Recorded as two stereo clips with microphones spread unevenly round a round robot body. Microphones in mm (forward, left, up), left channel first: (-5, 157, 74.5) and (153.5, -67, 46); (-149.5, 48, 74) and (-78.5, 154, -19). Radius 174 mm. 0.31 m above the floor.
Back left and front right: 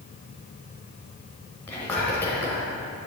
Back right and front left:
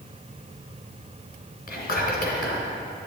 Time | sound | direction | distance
1.7 | whispering | 150° right | 1.9 m